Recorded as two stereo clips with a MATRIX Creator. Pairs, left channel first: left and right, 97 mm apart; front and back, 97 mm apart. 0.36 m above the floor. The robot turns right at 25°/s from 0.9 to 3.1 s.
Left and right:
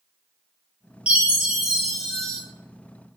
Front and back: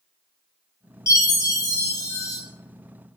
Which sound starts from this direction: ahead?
A chime, at 1.1 s.